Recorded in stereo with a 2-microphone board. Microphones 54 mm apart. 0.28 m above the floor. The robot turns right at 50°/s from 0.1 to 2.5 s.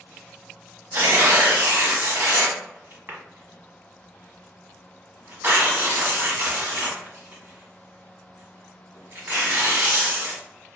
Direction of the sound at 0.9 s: 50° right (ahead or behind).